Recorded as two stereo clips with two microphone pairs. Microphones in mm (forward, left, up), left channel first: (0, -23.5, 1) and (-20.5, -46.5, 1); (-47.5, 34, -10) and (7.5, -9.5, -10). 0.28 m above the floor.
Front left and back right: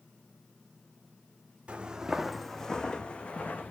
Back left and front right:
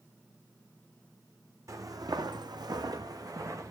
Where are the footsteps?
80° right, 0.8 m; by 3.7 s 5° left, 1.3 m.